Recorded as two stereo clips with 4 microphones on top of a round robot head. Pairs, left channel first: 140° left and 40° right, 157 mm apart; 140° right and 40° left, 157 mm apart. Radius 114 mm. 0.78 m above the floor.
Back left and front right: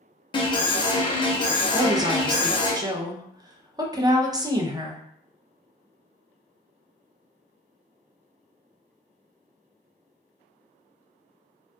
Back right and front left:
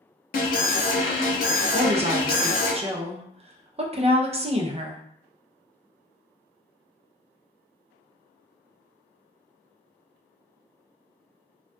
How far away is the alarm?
About 0.7 m.